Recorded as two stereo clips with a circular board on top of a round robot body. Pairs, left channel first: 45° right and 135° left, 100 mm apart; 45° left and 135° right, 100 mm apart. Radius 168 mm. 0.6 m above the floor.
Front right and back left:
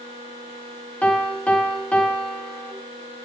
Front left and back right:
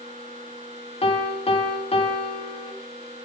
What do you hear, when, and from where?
1.0 s a piano: 35° left, 1.1 m